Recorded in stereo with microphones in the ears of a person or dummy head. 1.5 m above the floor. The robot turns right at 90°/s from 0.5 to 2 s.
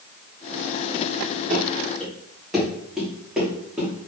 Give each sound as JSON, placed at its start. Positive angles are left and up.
{"t": 1.5, "sound": "running footsteps", "side_deg": -35, "distance_m": 4.0}